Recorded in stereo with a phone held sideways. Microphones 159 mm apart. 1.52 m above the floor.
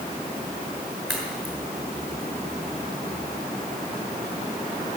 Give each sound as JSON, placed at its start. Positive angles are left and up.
{"t": 1.1, "sound": "a crack", "side_deg": 0, "distance_m": 5.0}